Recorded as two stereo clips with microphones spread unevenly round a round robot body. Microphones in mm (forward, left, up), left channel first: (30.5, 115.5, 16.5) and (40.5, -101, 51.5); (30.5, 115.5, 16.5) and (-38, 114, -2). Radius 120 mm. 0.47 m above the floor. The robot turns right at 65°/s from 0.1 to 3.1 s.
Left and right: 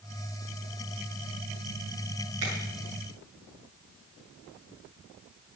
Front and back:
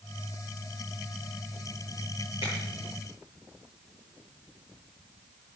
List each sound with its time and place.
2.4 s a finger snap: 70° right, 7.5 m; by 2.5 s 60° right, 7.5 m